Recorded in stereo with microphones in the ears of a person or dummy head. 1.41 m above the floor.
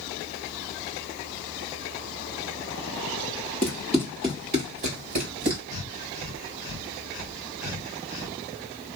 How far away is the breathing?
About 1.6 m.